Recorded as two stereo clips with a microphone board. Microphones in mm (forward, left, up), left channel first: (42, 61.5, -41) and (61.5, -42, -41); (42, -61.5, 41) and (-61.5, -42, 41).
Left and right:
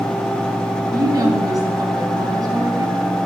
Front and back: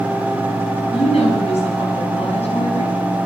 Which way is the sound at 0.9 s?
25° right.